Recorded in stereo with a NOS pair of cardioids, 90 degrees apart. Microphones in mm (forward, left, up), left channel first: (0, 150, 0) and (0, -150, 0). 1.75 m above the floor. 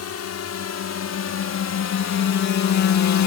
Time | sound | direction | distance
0.0 | a drone | 55° left | ?